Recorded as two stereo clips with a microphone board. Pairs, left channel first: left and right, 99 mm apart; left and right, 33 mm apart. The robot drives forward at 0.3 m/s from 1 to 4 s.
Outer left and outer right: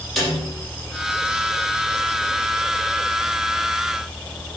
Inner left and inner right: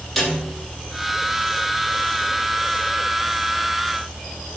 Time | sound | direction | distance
0.2 | a snare drum | centre (ahead or behind) | 7 m